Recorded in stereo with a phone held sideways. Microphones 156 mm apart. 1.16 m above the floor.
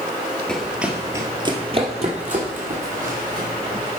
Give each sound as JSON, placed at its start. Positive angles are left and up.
{"t": 0.5, "sound": "running footsteps", "side_deg": 5, "distance_m": 1.6}